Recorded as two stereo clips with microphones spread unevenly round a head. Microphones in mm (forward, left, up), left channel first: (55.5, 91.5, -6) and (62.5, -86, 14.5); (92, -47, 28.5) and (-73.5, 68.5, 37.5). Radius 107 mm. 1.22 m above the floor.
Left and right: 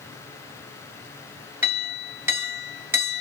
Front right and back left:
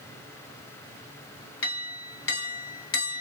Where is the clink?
10° right, 1.0 m.